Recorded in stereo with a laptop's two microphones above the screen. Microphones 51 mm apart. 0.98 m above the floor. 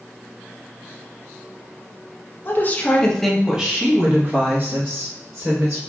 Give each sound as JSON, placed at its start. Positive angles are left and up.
{"t": 2.5, "sound": "a woman speaking", "side_deg": 45, "distance_m": 0.7}